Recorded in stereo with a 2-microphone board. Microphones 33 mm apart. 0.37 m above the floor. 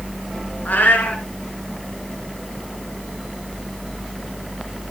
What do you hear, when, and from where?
0.7 s a cat meowing: 70° left (ahead or behind), 2.5 m